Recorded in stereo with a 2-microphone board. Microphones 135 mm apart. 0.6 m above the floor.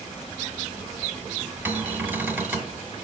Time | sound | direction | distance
1.6 | a cupboard door | 15° right (ahead or behind) | 1.5 m